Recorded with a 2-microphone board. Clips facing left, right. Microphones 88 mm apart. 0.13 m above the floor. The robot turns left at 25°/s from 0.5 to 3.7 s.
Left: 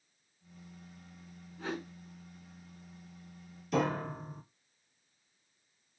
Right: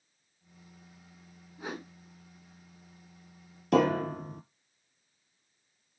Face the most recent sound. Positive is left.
turn(degrees=-65)  # may be behind; listen again after turning